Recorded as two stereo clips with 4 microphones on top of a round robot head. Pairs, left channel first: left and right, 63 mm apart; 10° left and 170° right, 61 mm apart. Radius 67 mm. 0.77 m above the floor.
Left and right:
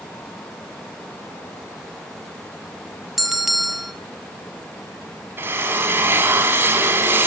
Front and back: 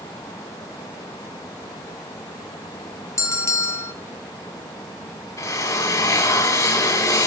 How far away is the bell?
About 1.6 m.